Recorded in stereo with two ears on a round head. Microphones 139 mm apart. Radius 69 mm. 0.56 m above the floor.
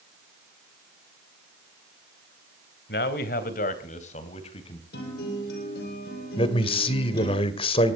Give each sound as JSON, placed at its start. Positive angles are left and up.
{"t": 2.9, "sound": "a man speaking", "side_deg": 70, "distance_m": 2.5}
{"t": 4.9, "sound": "a guitar", "side_deg": 75, "distance_m": 7.0}
{"t": 6.4, "sound": "a man speaking", "side_deg": 35, "distance_m": 2.0}